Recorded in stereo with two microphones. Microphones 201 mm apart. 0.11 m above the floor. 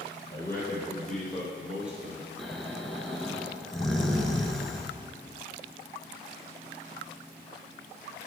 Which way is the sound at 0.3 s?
15° left (ahead or behind).